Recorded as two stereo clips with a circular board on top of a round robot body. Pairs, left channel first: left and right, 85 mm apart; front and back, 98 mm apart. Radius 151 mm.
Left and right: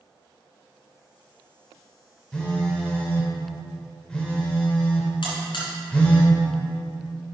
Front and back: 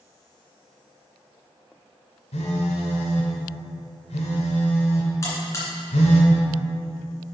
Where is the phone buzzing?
10° left, 1.1 m.